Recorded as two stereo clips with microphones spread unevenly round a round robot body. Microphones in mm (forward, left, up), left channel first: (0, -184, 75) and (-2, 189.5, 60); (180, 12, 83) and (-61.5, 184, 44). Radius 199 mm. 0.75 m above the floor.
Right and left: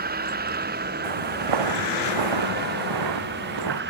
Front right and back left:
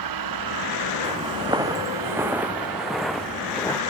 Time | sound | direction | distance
0.0 | a vehicle | 155° left | ?
1.0 | footsteps | 70° left | ?